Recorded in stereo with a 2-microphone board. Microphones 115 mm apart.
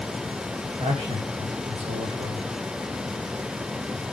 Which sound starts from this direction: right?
A man speaking, at 0.8 s.